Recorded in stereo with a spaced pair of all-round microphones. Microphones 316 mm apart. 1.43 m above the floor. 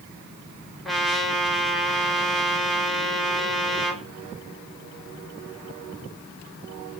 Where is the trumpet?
Centre (ahead or behind), 4.5 m.